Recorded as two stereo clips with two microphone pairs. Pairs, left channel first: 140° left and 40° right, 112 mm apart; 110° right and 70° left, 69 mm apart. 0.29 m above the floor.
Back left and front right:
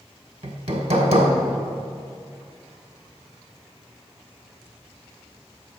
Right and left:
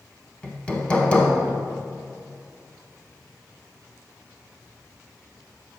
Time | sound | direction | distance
0.4 | hammering | 40° right | 1.0 m